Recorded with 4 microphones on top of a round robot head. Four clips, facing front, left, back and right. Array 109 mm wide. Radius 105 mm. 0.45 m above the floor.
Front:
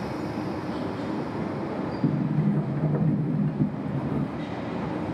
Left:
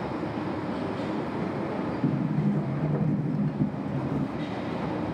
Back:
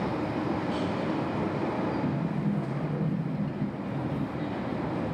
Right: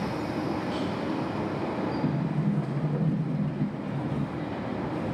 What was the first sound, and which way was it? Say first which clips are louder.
A sliding door: left 2 dB, front 4 dB; 25° left.